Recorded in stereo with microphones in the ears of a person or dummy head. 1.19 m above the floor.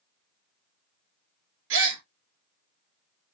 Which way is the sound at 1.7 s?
65° right (ahead or behind).